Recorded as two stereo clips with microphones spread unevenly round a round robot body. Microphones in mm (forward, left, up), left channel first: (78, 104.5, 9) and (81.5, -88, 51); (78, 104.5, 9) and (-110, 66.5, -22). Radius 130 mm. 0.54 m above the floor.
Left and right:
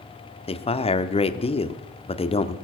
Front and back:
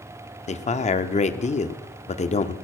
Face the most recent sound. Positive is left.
turn(degrees=60)